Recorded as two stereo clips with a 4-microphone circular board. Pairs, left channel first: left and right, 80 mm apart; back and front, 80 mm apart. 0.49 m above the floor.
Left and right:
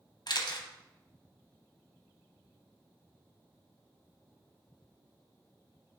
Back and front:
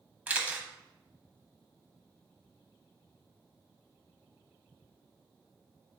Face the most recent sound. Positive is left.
turn(degrees=70)